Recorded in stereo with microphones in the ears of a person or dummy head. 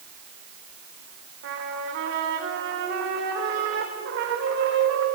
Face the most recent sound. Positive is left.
turn(degrees=-65)  # may be behind; listen again after turning